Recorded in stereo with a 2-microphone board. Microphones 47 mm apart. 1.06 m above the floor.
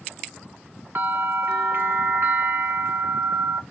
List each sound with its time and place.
0.9 s a bell: 55° right (ahead or behind), 1.2 m